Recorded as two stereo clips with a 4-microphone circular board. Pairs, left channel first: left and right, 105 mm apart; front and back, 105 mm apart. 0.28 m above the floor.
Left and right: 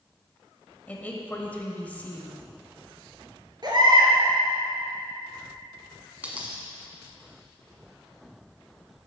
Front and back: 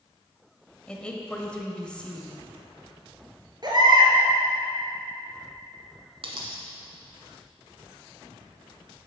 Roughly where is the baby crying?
Behind right.